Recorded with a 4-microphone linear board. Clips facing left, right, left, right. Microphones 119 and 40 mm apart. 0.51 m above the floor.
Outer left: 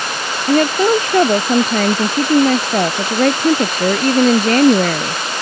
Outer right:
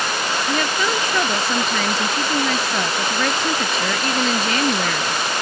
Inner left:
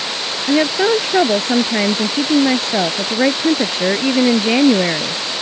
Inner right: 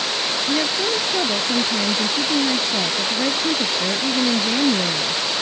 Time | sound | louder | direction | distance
0.5 | a woman speaking | outer left 12 dB, inner left 10 dB | 45° left (ahead or behind) | ?